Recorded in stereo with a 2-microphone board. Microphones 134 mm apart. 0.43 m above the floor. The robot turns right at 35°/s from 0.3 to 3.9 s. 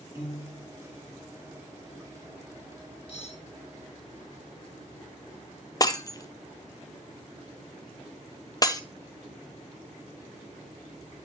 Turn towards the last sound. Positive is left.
turn(degrees=30)  # may be behind; listen again after turning